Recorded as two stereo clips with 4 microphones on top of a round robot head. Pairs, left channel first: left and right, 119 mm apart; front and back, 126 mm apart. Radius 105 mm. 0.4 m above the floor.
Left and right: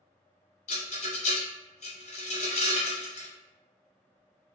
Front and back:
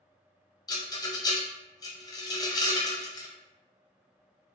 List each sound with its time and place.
0.7 s a rattle: 65° left, 0.7 m